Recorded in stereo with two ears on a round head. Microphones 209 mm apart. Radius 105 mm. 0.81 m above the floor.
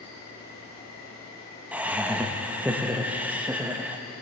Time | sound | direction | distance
0.0 | an insect | 15° left (ahead or behind) | 4.5 m
1.7 | laughter | 5° right (ahead or behind) | 0.6 m